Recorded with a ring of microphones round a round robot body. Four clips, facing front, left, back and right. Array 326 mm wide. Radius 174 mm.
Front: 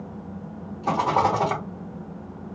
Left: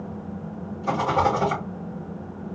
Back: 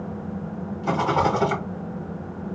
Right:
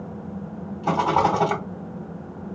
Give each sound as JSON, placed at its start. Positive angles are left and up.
{"t": 0.8, "sound": "a rattle", "azimuth_deg": -70, "distance_m": 2.5}